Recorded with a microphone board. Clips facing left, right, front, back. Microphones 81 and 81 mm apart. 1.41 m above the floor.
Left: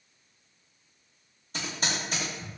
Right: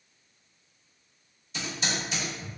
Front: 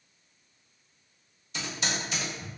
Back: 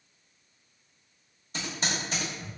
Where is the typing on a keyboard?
130° left, 1.2 m.